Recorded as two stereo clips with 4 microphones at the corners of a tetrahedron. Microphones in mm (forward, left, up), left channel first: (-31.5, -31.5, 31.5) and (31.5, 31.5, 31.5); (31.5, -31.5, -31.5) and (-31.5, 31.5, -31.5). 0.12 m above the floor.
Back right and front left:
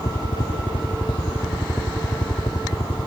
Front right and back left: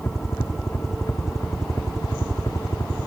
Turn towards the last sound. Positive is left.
turn(degrees=-100)